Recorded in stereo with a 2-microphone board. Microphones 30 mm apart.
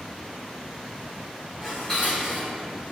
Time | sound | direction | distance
1.6 | dishes clattering | 20° left (ahead or behind) | 1.9 m